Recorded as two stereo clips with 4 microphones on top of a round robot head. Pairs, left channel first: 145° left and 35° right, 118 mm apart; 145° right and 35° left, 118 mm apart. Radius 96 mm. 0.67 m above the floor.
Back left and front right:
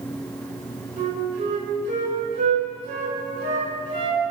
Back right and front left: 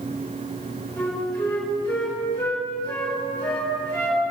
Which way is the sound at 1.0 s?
70° right.